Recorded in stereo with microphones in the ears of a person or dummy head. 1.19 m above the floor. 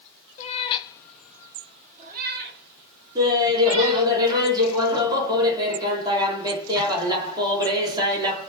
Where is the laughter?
20° right (ahead or behind), 1.5 m.